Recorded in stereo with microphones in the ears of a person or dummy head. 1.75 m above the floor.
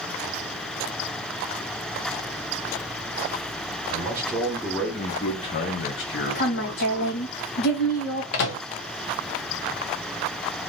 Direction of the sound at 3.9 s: 20° right (ahead or behind).